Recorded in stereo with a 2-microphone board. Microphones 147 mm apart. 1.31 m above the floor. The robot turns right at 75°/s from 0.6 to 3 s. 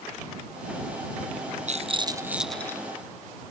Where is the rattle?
60° right; by 2.8 s 25° left.